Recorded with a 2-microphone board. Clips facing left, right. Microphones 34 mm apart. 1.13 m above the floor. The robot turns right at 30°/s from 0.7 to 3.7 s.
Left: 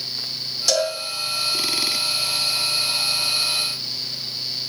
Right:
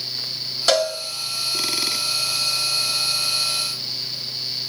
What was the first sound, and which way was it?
A cowbell, 40° right (ahead or behind).